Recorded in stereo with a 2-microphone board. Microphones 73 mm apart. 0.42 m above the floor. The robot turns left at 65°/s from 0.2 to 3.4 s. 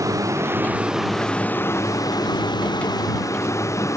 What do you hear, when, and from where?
0.0 s a vehicle: 50° right (ahead or behind); by 4.0 s 45° left (ahead or behind)